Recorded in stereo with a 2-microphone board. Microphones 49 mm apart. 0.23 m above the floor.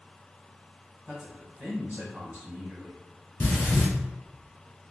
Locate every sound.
1.1 s a man speaking: 30° right (ahead or behind), 1.5 m
3.4 s breathing: 50° left (ahead or behind), 1.2 m